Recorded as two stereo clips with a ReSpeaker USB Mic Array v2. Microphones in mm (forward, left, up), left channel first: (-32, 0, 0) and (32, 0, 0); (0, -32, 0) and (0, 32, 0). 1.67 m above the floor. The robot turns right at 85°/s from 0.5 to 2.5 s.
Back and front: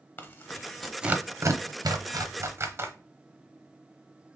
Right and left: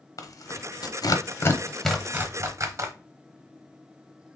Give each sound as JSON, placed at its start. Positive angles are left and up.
{"t": 0.2, "sound": "tearing paper", "azimuth_deg": -120, "distance_m": 0.8}